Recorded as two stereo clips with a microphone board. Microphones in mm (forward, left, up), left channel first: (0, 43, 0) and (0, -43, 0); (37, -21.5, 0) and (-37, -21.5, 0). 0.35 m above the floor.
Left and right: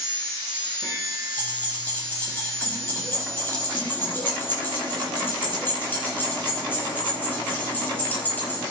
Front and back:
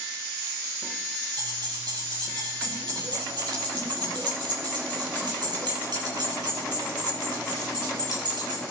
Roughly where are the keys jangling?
Behind left.